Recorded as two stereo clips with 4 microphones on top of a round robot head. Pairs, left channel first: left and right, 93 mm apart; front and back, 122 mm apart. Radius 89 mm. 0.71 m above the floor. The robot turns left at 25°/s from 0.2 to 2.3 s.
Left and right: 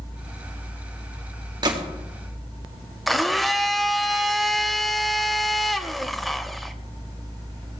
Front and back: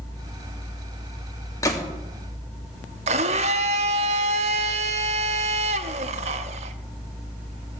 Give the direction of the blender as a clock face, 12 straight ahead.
6 o'clock.